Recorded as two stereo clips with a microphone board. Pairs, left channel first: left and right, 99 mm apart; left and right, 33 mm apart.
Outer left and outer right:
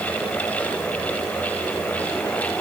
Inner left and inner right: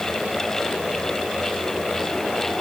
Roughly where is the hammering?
I don't hear hammering.